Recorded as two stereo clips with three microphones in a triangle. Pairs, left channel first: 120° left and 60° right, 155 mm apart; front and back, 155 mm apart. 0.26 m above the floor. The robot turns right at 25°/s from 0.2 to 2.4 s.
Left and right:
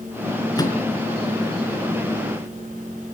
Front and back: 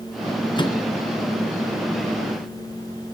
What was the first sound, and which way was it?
A microwave, 55° left.